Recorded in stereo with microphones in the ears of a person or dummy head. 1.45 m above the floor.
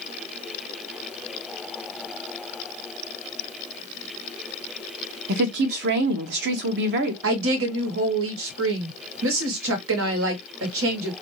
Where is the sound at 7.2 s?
75° right (ahead or behind), 1.2 m.